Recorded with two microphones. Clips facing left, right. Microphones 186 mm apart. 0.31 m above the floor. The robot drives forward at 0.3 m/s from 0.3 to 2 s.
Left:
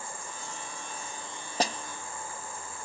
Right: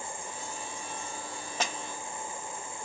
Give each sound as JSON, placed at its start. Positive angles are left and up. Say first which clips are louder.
{"t": 1.6, "sound": "a snare drum", "louder": "left 5 dB", "side_deg": 35, "distance_m": 0.9}